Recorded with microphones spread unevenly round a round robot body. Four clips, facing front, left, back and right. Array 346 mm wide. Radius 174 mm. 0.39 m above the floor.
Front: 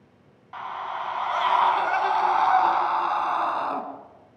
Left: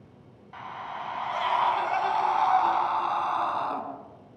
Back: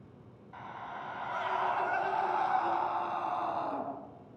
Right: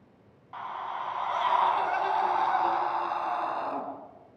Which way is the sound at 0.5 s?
Straight ahead.